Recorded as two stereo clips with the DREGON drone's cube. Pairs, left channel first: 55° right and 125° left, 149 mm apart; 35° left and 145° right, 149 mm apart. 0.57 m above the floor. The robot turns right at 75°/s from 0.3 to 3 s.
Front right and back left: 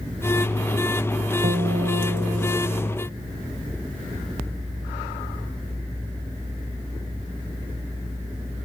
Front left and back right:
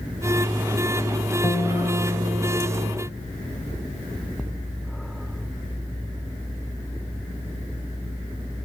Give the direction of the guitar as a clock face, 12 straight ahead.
8 o'clock.